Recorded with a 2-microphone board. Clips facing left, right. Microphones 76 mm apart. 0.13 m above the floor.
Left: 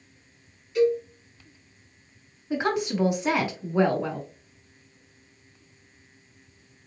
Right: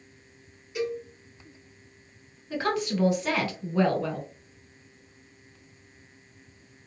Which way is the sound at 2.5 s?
20° left (ahead or behind).